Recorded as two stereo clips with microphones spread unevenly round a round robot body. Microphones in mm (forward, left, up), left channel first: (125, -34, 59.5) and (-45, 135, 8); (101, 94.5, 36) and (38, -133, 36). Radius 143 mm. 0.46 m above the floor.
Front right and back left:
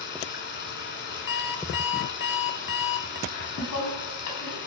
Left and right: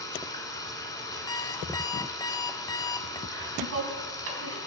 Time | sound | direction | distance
0.0 | running water | straight ahead | 2 m
1.3 | an alarm clock | straight ahead | 1.0 m
3.3 | laughter | 85° right | 4 m